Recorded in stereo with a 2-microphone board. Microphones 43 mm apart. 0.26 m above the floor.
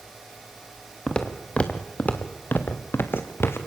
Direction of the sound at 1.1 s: 15° left (ahead or behind).